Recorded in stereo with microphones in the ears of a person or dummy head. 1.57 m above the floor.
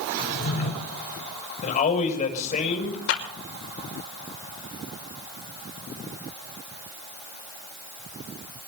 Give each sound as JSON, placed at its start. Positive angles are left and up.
{"t": 0.2, "sound": "a drawer", "side_deg": 50, "distance_m": 4.5}
{"t": 1.6, "sound": "a man speaking", "side_deg": 40, "distance_m": 7.0}
{"t": 3.1, "sound": "a clap", "side_deg": 70, "distance_m": 5.5}